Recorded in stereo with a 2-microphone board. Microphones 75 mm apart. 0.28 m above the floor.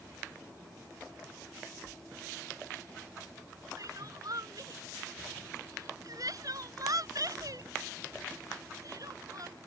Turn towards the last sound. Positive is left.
turn(degrees=-55)  # may be behind; listen again after turning